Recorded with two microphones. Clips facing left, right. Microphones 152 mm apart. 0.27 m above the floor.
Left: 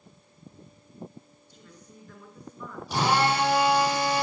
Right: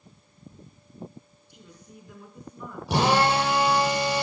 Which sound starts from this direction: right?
A drill, at 2.9 s.